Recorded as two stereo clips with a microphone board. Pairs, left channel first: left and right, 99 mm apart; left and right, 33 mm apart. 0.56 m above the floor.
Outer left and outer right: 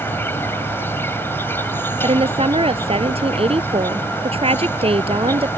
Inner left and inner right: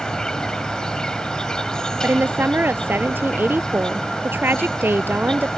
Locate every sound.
0.0 s an insect: 20° left (ahead or behind)
2.0 s a woman speaking: 75° right (ahead or behind)